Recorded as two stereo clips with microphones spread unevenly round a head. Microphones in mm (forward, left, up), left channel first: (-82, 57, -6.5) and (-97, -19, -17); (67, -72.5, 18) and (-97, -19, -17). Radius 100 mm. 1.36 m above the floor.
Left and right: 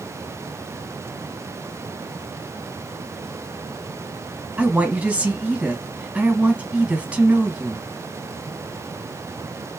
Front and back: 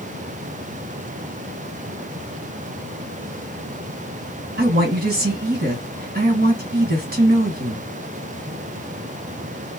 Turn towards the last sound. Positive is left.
turn(degrees=-175)